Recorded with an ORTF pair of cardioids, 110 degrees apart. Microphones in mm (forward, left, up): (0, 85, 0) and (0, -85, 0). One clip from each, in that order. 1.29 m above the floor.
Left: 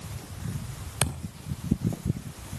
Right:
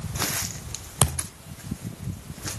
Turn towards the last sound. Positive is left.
turn(degrees=-25)